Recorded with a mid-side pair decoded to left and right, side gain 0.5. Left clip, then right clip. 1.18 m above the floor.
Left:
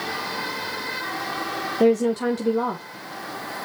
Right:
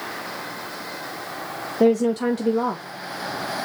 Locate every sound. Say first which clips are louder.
1.8 s a woman speaking: right 1 dB; 5° right, 0.9 m